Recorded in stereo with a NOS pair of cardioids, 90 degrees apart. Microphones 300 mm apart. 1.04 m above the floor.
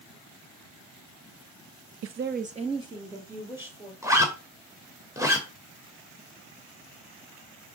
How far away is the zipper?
About 2.5 m.